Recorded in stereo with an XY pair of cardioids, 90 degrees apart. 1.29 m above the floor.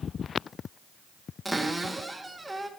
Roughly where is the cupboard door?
Ahead.